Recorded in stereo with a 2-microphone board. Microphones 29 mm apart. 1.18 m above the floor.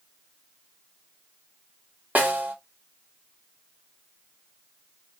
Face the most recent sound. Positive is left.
turn(degrees=-80)